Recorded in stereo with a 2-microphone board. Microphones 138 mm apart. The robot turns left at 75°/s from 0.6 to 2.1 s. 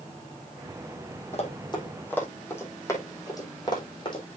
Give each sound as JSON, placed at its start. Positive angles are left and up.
{"t": 1.3, "sound": "running footsteps", "side_deg": 55, "distance_m": 3.5}